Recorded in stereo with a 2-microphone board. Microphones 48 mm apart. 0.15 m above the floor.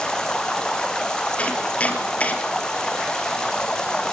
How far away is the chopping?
About 3 m.